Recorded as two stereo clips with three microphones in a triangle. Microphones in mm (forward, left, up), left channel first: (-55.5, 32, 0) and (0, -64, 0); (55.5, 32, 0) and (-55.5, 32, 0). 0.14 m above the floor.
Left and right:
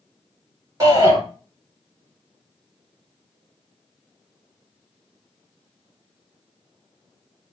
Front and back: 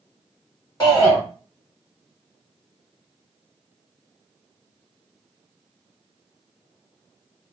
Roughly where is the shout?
Ahead right.